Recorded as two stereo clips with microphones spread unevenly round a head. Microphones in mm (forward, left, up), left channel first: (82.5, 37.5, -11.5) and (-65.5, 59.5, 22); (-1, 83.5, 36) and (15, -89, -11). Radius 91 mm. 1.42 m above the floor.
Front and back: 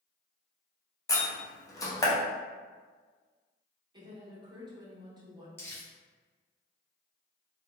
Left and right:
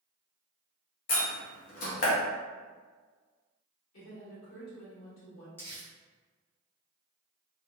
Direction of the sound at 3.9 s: 110° left.